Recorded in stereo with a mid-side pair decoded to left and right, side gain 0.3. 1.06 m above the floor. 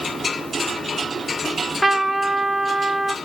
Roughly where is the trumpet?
Ahead.